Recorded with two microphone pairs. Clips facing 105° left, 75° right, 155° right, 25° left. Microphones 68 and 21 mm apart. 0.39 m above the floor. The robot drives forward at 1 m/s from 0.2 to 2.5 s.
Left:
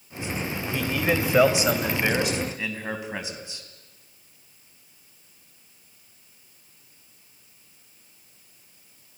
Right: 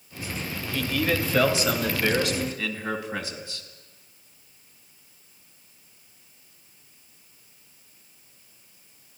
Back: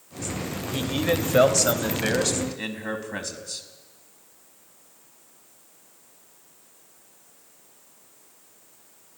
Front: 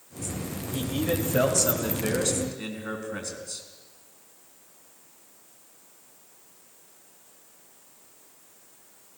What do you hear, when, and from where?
0.7 s a man speaking: 165° left, 1.6 m; by 3.6 s 175° left, 3 m